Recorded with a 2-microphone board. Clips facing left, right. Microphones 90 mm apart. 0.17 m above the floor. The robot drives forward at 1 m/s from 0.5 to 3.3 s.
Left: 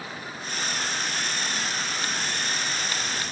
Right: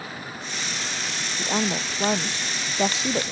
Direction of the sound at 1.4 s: 75° right (ahead or behind).